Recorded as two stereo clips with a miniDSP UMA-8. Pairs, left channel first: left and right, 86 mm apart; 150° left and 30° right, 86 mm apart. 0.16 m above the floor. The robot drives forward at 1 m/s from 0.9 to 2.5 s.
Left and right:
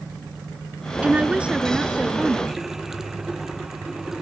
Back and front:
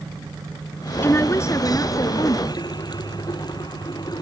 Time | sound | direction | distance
1.0 | a woman speaking | 160° right | ?
2.5 | a running tap | 175° right | ?